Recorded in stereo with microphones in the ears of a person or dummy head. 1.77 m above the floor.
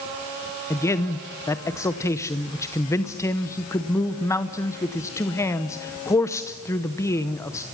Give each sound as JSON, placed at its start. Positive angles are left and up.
{"t": 0.7, "sound": "a man speaking", "side_deg": 15, "distance_m": 0.9}